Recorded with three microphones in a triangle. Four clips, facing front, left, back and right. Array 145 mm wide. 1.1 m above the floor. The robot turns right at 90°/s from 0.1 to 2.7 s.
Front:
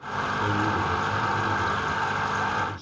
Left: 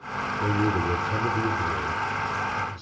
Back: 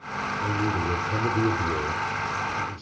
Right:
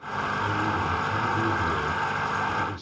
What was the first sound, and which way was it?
A man speaking, 65° left.